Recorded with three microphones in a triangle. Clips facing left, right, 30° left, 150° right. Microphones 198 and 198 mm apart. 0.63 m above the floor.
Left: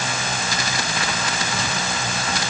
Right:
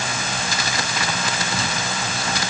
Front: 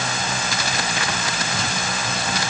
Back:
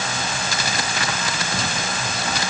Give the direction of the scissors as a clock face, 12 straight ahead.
No scissors in this recording.